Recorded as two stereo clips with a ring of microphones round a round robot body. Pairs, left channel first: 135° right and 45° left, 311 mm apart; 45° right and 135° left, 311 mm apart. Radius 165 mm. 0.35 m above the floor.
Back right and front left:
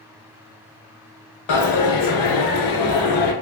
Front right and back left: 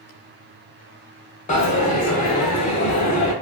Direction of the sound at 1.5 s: 110° right.